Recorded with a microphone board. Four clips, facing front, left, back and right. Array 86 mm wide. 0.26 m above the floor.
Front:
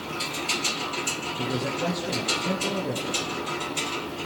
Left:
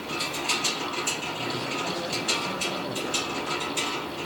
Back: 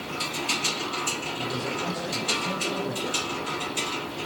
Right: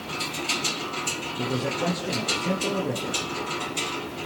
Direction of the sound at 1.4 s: 60° right.